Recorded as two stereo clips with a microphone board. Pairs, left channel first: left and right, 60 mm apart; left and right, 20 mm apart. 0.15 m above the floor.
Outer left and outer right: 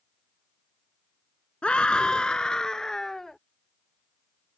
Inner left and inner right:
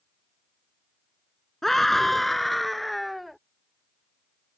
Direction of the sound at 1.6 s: 15° left (ahead or behind).